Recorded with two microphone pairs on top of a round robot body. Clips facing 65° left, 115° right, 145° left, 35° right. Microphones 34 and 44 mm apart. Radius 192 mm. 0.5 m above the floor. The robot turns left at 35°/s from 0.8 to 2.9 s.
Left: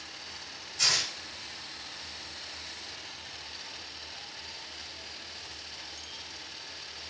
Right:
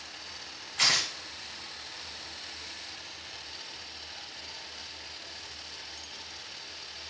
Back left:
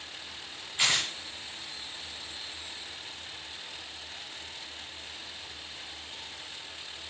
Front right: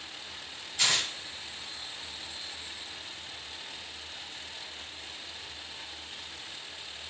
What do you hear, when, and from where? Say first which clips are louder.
0.8 s tearing paper: right 2 dB, back left 1 dB; 145° right, 1.0 m; by 1.1 s 155° right, 1.0 m